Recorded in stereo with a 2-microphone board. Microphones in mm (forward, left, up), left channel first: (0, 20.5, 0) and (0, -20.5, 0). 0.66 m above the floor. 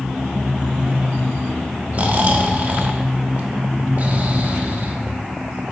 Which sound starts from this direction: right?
Snoring, at 1.9 s.